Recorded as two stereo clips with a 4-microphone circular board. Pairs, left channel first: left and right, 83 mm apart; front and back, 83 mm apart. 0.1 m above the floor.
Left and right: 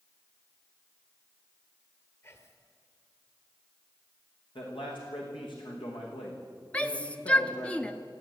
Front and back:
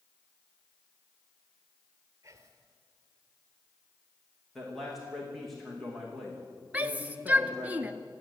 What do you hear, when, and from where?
2.2 s whispering: 140° left, 2.5 m
4.5 s a man speaking: 90° left, 7 m
6.7 s a shout: 140° left, 1.3 m